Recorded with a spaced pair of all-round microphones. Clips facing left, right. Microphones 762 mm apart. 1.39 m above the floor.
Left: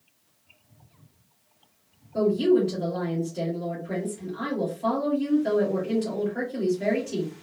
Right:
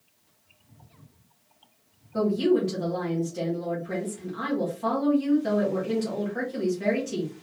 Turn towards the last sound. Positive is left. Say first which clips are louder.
# left 2 dB
turn(degrees=-40)  # may be behind; listen again after turning